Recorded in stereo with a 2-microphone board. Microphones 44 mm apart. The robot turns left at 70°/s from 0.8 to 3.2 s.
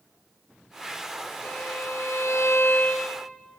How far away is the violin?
About 5 m.